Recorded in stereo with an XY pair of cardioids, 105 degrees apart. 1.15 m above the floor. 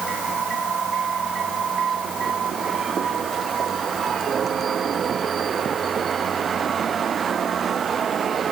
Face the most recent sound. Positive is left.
No sound to turn to.